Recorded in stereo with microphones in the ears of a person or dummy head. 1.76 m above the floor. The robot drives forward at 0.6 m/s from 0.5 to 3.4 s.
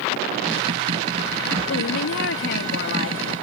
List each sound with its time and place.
1.7 s a woman speaking: 70° left (ahead or behind); by 3.3 s 55° left (ahead or behind)